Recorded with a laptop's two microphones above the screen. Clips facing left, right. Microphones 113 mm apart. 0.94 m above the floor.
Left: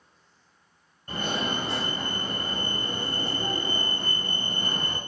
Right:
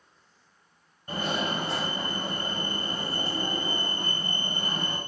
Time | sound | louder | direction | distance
1.1 | a fire alarm | even | 5° right (ahead or behind) | 1.5 m